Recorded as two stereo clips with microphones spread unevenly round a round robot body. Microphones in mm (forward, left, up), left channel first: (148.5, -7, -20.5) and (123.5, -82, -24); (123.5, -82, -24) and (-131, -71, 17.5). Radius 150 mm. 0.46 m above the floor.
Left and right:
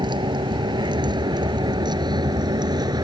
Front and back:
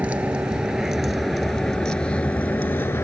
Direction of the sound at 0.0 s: 100° right.